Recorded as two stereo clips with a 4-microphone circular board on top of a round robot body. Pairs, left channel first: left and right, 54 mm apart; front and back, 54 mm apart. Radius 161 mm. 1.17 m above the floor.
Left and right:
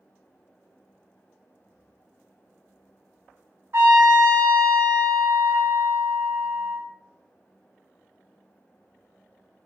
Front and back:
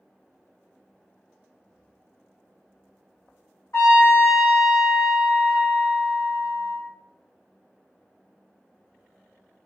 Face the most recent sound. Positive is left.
turn(degrees=-40)